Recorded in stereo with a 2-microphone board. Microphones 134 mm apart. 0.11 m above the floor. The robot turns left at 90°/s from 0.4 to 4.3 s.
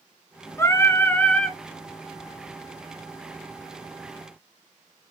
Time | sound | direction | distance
0.6 | singing | 20° left (ahead or behind) | 0.8 m